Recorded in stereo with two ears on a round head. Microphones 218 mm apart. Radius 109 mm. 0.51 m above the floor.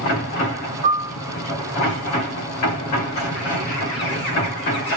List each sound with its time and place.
0.8 s a piano: 45° right (ahead or behind), 1.0 m